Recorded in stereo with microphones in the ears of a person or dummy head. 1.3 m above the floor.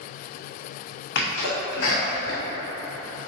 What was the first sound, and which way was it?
A sneeze, 60° left (ahead or behind).